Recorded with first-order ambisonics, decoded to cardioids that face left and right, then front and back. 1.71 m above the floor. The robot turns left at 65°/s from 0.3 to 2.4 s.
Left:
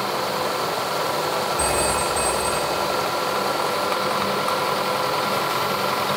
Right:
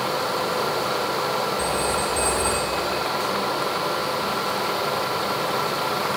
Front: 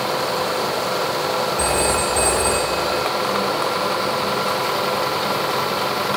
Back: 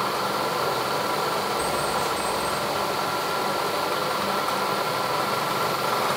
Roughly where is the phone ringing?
Ahead left.